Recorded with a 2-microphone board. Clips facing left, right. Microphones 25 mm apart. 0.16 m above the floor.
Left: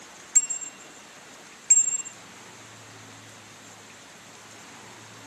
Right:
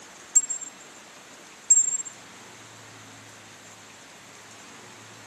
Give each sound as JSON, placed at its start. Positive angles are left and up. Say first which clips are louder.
{"t": 0.3, "sound": "a bicycle bell", "louder": "even", "side_deg": 80}